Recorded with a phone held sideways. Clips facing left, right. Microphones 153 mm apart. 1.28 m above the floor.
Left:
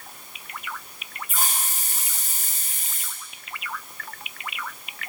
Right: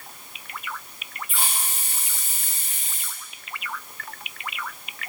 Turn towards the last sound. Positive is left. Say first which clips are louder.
# left 2 dB
turn(degrees=45)  # may be behind; listen again after turning